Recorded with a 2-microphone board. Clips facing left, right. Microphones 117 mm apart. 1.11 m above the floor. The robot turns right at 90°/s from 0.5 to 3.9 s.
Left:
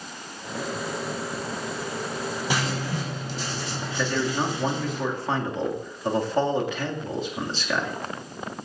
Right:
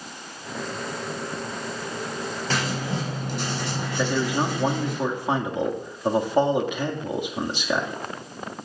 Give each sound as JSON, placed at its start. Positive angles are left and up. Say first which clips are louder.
{"t": 2.5, "sound": "writing", "louder": "right 2 dB", "azimuth_deg": 165, "distance_m": 8.0}
{"t": 4.0, "sound": "a man speaking", "louder": "right 2 dB", "side_deg": -20, "distance_m": 2.0}